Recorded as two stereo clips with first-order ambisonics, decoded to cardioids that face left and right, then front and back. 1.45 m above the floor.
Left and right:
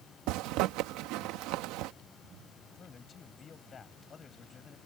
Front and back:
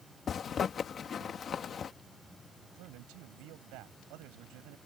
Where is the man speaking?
155° left.